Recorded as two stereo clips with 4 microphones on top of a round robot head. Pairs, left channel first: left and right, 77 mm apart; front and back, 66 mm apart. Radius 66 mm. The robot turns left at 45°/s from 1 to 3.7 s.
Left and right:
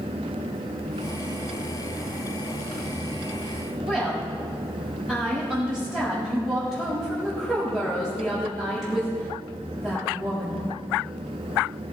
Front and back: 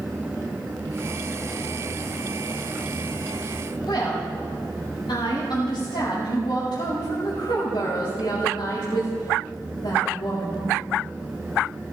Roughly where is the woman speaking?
Ahead.